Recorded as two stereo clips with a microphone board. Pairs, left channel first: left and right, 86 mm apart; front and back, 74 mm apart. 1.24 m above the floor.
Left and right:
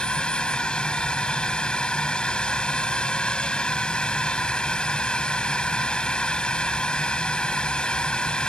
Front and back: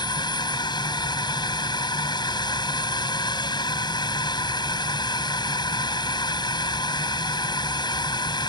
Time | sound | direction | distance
0.0 | a drone | 10° left | ?